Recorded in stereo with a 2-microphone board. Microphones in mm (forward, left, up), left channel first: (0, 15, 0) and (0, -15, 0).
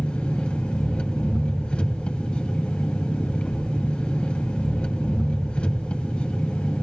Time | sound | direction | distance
0.0 | an engine running | 45° left (ahead or behind) | 1.9 m